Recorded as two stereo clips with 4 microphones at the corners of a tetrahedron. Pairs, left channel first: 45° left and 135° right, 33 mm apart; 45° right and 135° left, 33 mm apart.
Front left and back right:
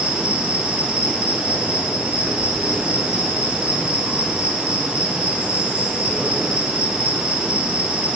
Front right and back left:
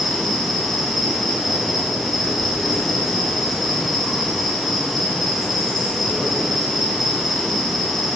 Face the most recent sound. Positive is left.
turn(degrees=-135)